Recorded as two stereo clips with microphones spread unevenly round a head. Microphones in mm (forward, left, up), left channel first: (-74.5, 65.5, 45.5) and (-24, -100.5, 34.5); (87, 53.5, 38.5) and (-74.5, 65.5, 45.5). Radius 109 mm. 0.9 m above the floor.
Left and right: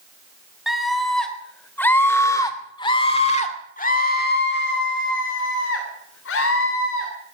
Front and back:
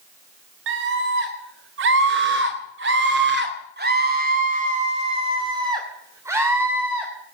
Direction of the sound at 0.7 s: 160° right.